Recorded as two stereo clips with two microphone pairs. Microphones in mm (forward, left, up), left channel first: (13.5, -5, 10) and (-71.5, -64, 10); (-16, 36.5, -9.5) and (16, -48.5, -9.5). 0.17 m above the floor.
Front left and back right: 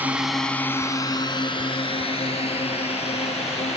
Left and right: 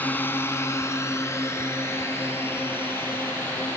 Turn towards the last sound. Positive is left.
turn(degrees=45)